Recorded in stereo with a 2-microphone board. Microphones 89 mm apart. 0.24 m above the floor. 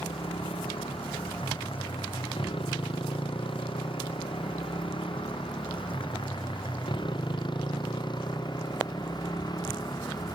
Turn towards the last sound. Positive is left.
turn(degrees=50)  # may be behind; listen again after turning